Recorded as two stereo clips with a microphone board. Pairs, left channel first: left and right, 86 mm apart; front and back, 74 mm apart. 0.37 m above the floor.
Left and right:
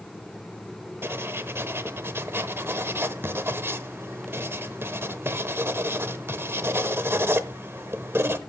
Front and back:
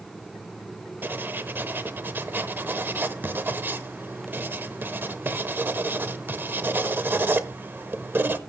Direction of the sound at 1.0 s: 135° right.